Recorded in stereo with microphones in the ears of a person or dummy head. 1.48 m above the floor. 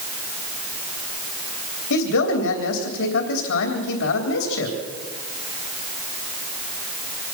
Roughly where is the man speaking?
Left.